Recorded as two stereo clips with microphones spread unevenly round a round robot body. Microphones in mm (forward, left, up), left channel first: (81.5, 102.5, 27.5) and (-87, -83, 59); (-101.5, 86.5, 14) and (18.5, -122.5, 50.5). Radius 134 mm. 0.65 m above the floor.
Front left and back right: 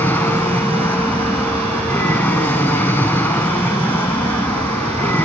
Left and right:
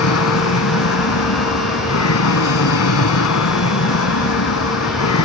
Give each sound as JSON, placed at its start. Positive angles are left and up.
{"t": 0.0, "sound": "an aircraft", "azimuth_deg": 130}